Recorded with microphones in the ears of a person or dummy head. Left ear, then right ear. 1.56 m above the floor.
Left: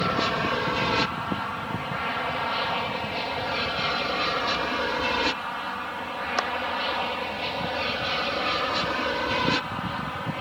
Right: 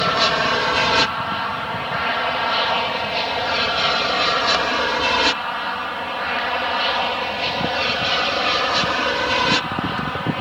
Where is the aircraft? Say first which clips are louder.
Right 7 dB; 30° right (ahead or behind).